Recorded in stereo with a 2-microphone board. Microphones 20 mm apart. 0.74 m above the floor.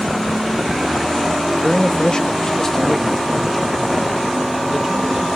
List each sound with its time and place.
1.5 s a man speaking: 45° left (ahead or behind), 1.2 m; by 5.3 s 15° right (ahead or behind), 3 m